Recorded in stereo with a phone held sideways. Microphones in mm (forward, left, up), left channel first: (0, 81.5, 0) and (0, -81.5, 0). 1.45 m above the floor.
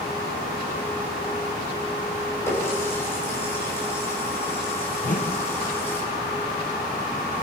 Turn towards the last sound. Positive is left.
turn(degrees=45)  # may be behind; listen again after turning